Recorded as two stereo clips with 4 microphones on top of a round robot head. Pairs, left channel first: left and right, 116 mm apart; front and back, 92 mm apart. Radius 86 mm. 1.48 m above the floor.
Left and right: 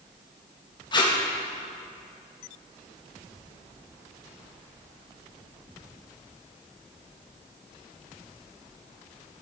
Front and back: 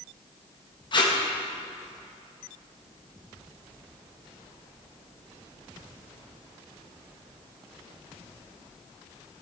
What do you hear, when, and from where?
0.9 s tape being pulled: 40° left, 1.5 m